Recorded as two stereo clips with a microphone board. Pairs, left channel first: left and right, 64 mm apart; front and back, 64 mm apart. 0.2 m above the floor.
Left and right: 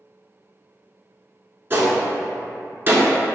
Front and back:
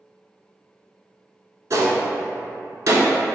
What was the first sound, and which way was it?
A gunshot, 145° right.